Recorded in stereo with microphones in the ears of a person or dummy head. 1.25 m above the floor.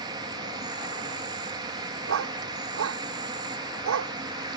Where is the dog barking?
65° right (ahead or behind).